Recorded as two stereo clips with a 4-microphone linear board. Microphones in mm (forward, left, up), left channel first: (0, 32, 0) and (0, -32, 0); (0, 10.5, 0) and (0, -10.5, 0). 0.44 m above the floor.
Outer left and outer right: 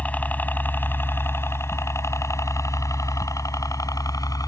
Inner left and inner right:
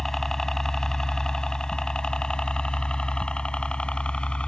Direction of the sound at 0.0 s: 20° left (ahead or behind).